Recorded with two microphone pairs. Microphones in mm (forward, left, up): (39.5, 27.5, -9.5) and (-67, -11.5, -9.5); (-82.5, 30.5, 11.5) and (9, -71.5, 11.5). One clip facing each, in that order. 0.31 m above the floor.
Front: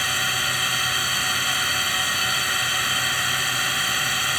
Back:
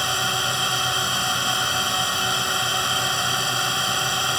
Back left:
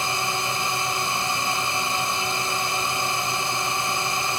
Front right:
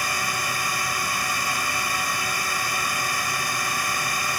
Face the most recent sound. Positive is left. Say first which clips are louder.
# back 3 dB, back left 2 dB
turn(degrees=170)